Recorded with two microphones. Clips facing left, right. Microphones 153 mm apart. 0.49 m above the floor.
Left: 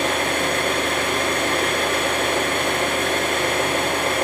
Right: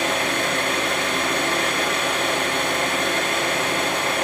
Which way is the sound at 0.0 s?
55° left (ahead or behind).